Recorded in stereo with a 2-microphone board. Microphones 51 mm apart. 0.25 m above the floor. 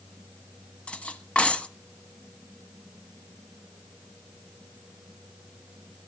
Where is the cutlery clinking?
20° left (ahead or behind), 0.9 m.